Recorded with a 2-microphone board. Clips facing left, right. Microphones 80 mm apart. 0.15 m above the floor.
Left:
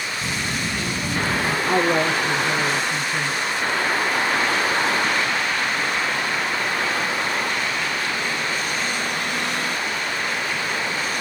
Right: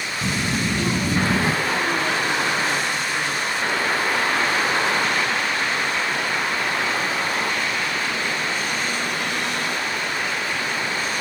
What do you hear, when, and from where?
0.2 s a child speaking: 35° right (ahead or behind), 1.1 m; by 1.6 s 45° right (ahead or behind), 1.5 m
1.6 s a woman speaking: 65° left (ahead or behind), 3 m